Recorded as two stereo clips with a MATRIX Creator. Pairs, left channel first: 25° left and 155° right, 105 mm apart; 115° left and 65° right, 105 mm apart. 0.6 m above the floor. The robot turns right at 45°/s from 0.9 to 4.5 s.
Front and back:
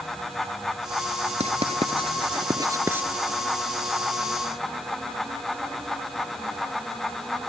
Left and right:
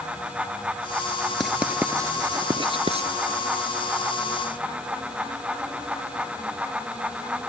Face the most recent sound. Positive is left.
turn(degrees=-20)